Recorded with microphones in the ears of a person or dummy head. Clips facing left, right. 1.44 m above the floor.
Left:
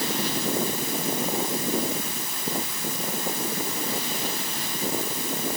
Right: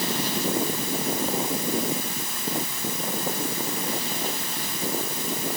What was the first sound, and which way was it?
Only background noise.